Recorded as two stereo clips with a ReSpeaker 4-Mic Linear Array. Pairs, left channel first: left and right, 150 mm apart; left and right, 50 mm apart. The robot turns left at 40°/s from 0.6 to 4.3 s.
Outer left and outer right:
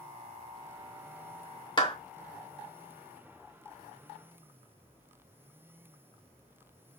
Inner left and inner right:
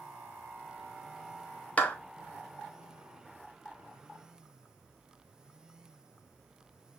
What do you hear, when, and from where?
1.8 s a clap: 30° left (ahead or behind), 0.9 m